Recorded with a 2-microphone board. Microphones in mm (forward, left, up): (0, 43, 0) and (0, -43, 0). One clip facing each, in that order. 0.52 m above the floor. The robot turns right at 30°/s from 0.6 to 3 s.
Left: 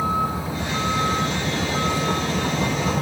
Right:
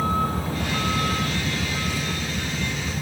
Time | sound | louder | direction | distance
0.0 | a vehicle | left 1 dB | 10° left | ?